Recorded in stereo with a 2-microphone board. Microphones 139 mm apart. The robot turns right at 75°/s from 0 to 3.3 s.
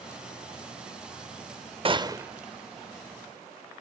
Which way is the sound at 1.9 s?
50° right.